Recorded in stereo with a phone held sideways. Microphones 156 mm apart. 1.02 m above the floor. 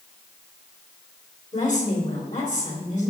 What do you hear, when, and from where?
1.5 s a woman speaking: 50° left (ahead or behind), 3 m